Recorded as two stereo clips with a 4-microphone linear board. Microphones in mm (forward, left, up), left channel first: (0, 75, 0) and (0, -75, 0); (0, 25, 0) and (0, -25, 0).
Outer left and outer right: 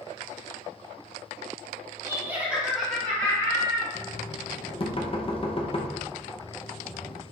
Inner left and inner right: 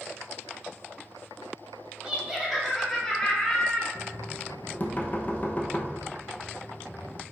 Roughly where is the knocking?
Left.